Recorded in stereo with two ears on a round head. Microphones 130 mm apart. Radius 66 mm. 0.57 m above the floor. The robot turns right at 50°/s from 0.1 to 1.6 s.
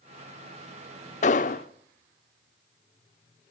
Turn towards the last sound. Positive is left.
turn(degrees=60)  # may be behind; listen again after turning